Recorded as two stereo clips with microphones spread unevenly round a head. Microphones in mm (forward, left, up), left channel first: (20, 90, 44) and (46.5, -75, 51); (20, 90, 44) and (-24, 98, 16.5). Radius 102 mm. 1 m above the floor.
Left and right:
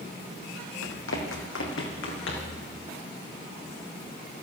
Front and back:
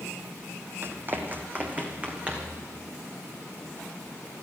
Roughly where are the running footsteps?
Behind left.